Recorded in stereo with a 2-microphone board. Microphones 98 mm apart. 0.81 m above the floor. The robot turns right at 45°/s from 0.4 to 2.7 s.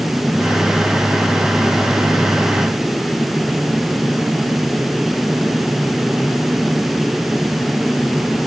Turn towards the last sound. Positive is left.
No sound to turn to.